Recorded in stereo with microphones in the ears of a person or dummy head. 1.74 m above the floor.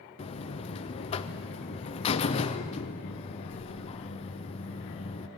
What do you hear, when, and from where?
0.2 s a buzzer: 35° left (ahead or behind), 0.6 m